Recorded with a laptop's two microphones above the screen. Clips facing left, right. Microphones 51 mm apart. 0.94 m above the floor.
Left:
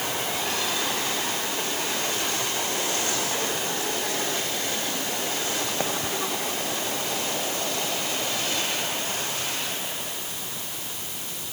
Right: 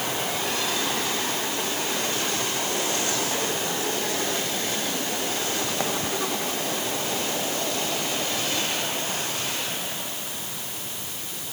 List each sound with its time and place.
Only background noise.